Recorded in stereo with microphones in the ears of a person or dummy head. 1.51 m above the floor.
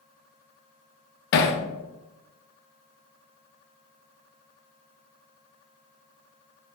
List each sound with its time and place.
1.3 s hammering: 55° left (ahead or behind), 0.6 m